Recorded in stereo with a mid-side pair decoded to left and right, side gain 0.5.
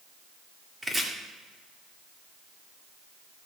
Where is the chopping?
10° right, 2 m.